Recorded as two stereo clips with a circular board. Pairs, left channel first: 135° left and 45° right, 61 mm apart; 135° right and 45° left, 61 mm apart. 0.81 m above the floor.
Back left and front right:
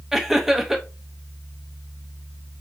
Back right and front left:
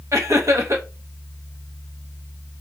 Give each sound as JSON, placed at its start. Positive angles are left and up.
{"t": 0.1, "sound": "laughter", "azimuth_deg": 35, "distance_m": 0.9}